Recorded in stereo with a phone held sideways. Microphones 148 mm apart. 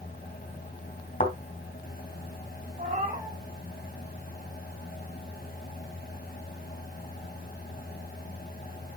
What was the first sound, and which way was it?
A fan, 85° left.